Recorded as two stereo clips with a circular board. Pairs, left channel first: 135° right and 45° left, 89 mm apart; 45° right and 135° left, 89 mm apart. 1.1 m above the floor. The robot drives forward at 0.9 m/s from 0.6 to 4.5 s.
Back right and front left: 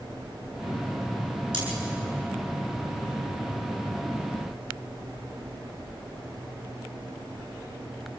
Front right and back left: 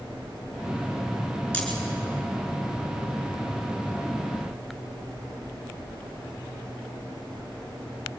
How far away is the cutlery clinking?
About 9.5 m.